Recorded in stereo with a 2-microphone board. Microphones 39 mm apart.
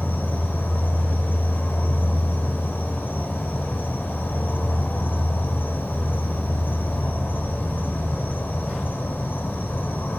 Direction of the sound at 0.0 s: 60° left (ahead or behind).